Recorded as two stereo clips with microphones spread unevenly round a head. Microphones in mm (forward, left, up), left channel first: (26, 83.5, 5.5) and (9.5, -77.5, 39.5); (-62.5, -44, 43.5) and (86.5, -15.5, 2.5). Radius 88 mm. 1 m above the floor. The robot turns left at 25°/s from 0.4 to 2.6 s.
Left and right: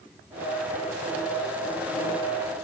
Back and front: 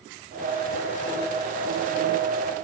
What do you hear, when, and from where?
Only background noise.